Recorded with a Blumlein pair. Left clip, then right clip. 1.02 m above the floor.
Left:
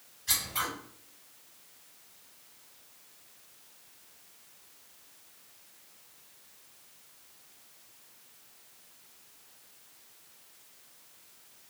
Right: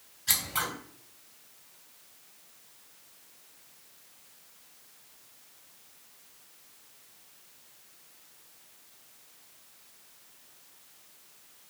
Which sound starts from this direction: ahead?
Scissors, at 0.3 s.